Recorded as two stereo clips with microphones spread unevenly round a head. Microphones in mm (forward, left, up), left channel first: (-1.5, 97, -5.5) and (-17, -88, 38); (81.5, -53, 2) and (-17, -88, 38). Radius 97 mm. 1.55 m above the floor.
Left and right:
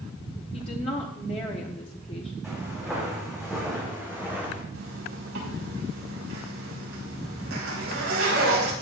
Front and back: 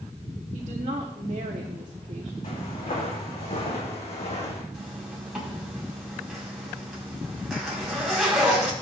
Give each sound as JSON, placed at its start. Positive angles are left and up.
{"t": 0.5, "sound": "a woman speaking", "azimuth_deg": 145, "distance_m": 1.2}
{"t": 2.4, "sound": "footsteps", "azimuth_deg": -10, "distance_m": 6.5}
{"t": 4.7, "sound": "a zipper", "azimuth_deg": -75, "distance_m": 5.0}